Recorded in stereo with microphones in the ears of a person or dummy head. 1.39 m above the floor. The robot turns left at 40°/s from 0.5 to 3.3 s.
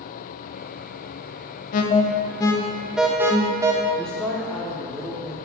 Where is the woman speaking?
5° left (ahead or behind), 0.8 m.